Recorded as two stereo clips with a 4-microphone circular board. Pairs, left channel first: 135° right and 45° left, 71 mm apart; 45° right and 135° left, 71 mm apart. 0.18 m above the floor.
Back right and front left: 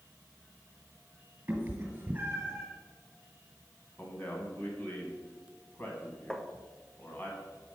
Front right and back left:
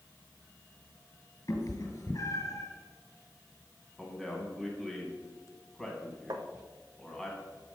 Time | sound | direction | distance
1.5 | a cat meowing | 15° right | 1.8 m
4.0 | a man speaking | 130° right | 1.6 m
6.3 | tapping | 145° left | 0.5 m